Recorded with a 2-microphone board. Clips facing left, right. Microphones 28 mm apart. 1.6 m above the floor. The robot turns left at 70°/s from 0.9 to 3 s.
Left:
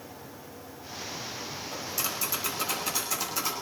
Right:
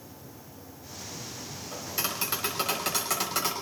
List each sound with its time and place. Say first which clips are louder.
1.7 s tapping: right 2 dB; 5° right, 6 m; by 3.5 s 95° right, 6 m